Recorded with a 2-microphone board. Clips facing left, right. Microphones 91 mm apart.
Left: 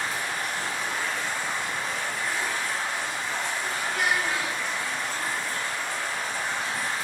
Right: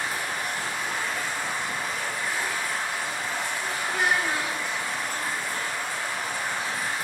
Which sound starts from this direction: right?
A child speaking, at 3.9 s.